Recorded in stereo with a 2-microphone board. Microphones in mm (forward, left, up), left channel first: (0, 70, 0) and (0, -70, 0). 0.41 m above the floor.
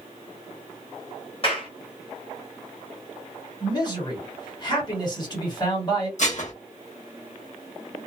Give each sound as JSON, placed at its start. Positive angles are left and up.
{"t": 1.4, "sound": "a clap", "side_deg": 40, "distance_m": 1.4}
{"t": 3.6, "sound": "a man speaking", "side_deg": 30, "distance_m": 1.7}
{"t": 6.2, "sound": "dishes clattering", "side_deg": 60, "distance_m": 0.9}